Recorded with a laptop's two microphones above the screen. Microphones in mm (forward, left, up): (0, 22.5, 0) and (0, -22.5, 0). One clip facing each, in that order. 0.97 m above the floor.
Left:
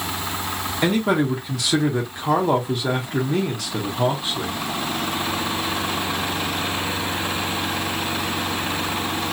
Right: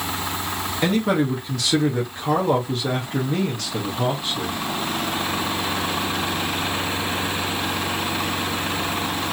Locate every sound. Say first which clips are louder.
0.8 s a man speaking: left 1 dB; 10° left (ahead or behind), 0.8 m